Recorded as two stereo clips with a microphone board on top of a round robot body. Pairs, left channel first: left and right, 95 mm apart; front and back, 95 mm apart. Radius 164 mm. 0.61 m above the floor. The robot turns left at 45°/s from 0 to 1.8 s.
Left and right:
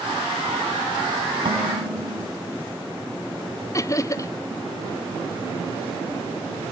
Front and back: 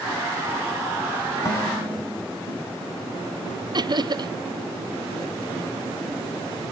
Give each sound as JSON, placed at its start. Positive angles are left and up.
{"t": 1.4, "sound": "dishes clattering", "azimuth_deg": -55, "distance_m": 4.0}
{"t": 3.7, "sound": "laughter", "azimuth_deg": 140, "distance_m": 0.9}